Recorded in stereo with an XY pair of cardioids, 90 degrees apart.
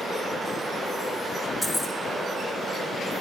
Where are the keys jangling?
10° left, 1.2 m.